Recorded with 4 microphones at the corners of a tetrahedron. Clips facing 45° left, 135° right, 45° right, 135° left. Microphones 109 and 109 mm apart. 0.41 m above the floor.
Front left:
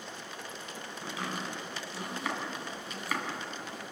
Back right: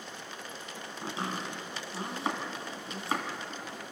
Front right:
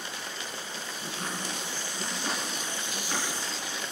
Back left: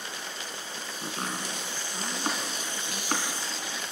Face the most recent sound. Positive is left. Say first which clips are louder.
# back right 2 dB, back left 2 dB
turn(degrees=165)